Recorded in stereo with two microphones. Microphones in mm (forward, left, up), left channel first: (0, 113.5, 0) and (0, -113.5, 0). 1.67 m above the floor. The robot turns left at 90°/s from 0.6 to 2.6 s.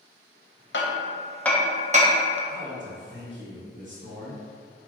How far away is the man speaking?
About 1.0 m.